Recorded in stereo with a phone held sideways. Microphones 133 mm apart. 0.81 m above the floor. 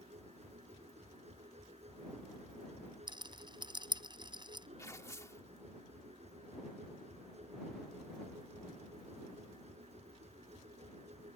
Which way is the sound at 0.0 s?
55° right (ahead or behind).